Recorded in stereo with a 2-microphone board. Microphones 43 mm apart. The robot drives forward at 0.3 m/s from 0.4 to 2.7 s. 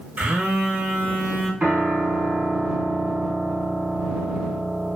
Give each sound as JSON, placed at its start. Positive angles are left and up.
{"t": 0.2, "sound": "a phone buzzing", "side_deg": -40, "distance_m": 0.7}
{"t": 1.6, "sound": "a piano", "side_deg": -40, "distance_m": 1.5}